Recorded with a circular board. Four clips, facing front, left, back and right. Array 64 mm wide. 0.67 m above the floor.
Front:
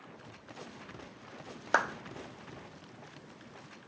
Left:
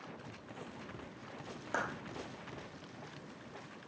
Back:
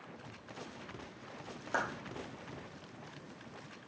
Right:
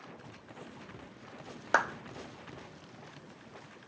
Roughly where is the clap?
Ahead right.